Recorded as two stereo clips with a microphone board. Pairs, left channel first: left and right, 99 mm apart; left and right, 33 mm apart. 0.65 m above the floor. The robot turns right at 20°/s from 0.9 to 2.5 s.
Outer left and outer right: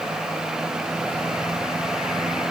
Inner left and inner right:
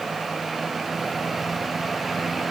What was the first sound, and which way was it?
Only background noise.